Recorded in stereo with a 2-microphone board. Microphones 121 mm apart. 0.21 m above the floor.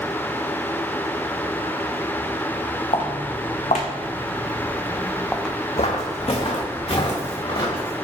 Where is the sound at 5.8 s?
65° left (ahead or behind), 0.5 m; by 7.9 s 45° left (ahead or behind), 1.8 m.